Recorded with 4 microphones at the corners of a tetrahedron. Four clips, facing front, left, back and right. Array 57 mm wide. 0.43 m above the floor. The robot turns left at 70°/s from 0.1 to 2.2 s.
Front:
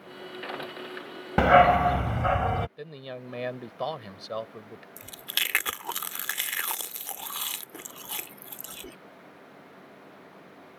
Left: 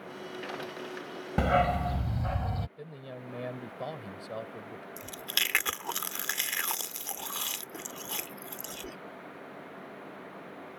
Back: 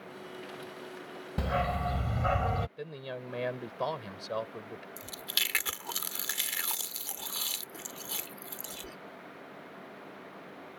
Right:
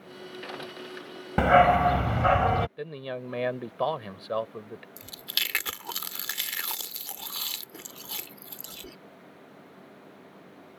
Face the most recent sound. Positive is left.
turn(degrees=30)